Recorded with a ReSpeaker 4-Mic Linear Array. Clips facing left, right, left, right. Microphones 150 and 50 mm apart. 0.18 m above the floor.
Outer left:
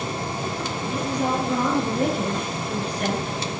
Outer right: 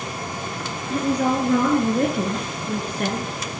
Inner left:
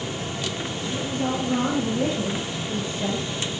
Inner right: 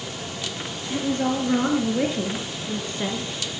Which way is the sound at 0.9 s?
65° right (ahead or behind).